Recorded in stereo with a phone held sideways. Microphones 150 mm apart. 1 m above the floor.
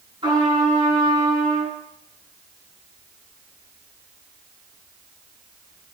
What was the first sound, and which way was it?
A trumpet, 25° right (ahead or behind).